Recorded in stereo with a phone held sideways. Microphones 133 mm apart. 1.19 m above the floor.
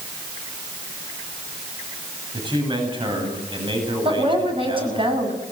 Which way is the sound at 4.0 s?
40° right (ahead or behind).